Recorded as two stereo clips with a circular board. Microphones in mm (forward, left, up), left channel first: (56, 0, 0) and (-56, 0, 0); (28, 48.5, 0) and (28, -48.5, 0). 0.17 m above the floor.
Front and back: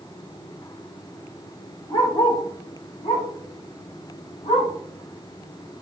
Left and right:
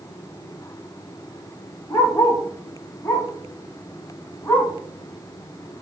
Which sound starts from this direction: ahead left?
A dog barking, at 1.9 s.